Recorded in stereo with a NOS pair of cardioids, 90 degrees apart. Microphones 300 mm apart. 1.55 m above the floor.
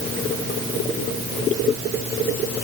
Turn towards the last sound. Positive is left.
No sound to turn to.